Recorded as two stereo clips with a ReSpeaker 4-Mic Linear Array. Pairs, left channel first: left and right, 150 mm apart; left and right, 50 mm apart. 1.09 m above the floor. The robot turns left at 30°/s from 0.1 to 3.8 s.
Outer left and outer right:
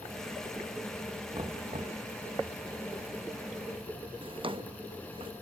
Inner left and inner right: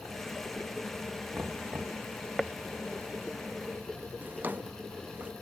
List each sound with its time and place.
1.3 s knocking: 25° right (ahead or behind), 1.0 m; by 2.0 s 45° right (ahead or behind), 1.0 m
4.2 s a drawer: 35° right (ahead or behind), 0.6 m